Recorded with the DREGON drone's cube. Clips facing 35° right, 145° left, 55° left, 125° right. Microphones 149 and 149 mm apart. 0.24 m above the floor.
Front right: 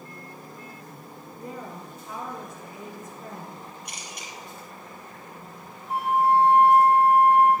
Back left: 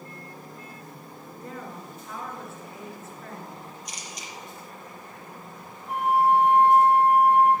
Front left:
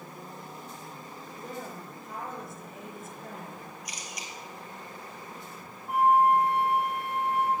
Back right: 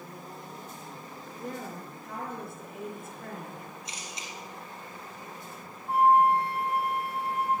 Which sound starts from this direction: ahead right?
A camera shutter, at 3.9 s.